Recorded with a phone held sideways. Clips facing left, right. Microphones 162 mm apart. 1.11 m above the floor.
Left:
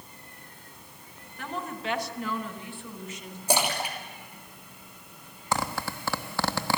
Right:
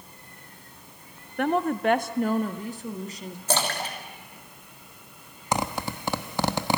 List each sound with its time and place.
1.4 s a woman speaking: 65° right (ahead or behind), 0.9 m; by 3.4 s 35° right (ahead or behind), 1.8 m
3.5 s a splash: 10° left (ahead or behind), 3 m
5.5 s a zipper: 20° right (ahead or behind), 1.1 m